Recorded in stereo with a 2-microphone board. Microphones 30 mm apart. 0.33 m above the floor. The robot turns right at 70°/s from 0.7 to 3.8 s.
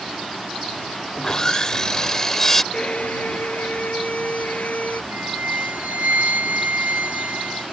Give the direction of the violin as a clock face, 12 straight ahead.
11 o'clock.